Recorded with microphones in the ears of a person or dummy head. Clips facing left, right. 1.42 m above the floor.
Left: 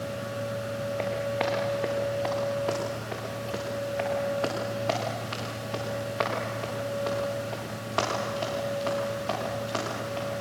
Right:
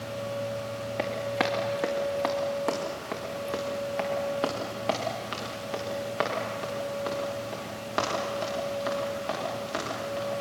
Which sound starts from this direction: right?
Running footsteps, at 1.0 s.